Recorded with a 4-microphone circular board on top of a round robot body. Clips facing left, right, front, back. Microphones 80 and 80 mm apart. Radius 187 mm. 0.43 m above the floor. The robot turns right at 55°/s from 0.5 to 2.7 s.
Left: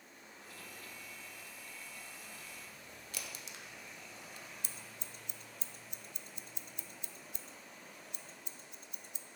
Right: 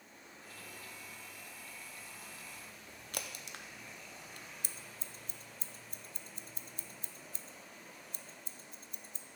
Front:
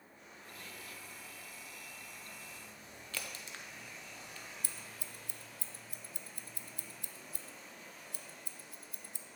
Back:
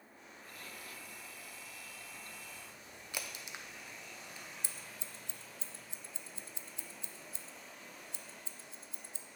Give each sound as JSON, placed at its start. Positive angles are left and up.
{"t": 3.1, "sound": "a crack", "azimuth_deg": -110, "distance_m": 0.8}
{"t": 4.6, "sound": "scissors", "azimuth_deg": -125, "distance_m": 0.5}